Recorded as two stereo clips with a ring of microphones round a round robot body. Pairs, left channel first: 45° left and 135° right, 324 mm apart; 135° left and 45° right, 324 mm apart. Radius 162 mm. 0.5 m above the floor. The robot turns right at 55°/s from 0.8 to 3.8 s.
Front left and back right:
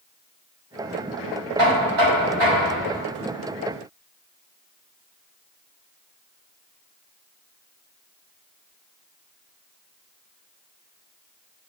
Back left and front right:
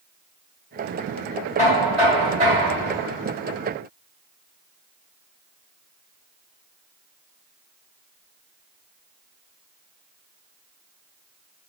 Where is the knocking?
160° right, 1.9 m; by 3.0 s 80° right, 1.9 m.